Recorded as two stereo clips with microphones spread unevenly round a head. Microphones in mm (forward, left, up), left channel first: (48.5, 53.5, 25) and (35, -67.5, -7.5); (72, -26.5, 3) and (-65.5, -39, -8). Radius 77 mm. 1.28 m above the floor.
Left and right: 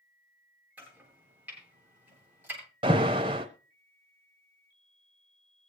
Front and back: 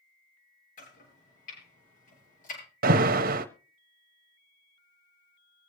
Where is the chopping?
20° right, 8 m.